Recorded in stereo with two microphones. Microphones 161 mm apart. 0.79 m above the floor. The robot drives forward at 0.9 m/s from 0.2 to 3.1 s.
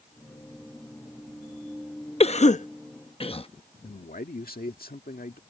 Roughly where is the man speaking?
Left.